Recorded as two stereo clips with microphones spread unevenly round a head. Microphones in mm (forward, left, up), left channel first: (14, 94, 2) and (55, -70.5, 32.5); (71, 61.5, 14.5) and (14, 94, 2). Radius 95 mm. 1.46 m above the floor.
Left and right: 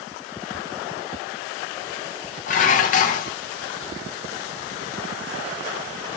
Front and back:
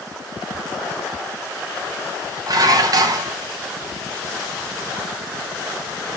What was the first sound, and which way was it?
Dishes clattering, 150° left.